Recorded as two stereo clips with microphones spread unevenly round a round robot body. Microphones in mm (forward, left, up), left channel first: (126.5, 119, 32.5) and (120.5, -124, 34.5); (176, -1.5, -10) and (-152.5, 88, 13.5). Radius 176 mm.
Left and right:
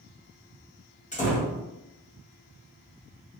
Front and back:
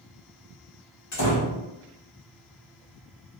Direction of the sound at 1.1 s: 25° left.